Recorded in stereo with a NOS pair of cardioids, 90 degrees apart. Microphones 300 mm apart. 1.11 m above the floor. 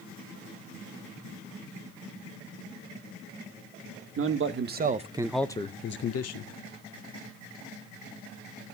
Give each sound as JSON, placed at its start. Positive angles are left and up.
{"t": 4.2, "sound": "a man speaking", "azimuth_deg": -45, "distance_m": 1.3}